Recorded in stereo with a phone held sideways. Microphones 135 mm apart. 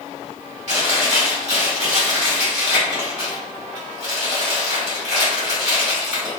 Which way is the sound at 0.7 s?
55° right (ahead or behind).